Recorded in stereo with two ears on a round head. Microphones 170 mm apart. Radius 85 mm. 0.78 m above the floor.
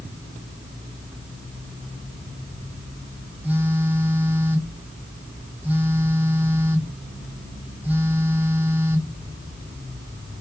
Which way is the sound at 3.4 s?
10° right (ahead or behind).